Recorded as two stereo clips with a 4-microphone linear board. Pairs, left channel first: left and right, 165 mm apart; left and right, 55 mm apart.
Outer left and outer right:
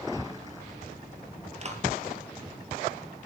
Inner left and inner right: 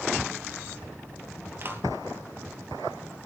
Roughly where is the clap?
Right.